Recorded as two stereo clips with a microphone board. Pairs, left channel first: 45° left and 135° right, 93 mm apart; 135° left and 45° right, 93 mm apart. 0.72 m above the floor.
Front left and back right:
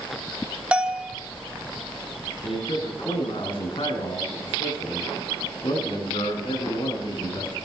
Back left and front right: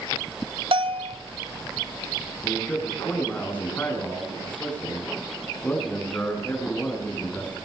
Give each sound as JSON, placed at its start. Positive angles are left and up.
{"t": 0.7, "sound": "a bell", "azimuth_deg": -55, "distance_m": 1.6}
{"t": 2.4, "sound": "a man speaking", "azimuth_deg": 65, "distance_m": 8.5}